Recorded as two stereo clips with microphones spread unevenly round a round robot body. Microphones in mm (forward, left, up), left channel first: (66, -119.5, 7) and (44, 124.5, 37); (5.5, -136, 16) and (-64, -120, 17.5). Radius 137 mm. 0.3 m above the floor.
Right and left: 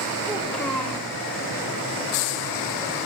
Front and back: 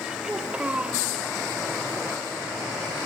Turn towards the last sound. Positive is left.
turn(degrees=-150)